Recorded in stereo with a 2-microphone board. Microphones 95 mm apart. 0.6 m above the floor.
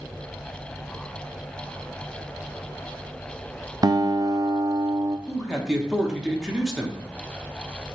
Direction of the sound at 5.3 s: 5° right (ahead or behind).